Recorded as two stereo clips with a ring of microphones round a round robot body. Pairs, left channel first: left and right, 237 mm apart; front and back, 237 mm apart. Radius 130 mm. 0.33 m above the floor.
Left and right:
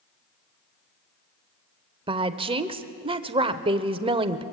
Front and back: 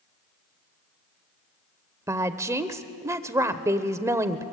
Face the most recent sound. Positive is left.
turn(degrees=-120)